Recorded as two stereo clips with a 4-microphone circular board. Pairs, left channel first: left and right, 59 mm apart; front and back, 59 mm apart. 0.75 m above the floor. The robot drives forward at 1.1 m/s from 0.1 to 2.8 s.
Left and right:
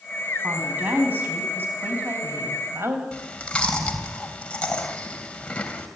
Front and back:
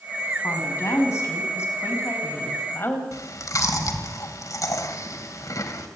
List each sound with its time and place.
0.4 s a woman speaking: 30° right, 6.5 m; by 3.0 s 50° right, 4.5 m
3.1 s chewing: 20° left, 3 m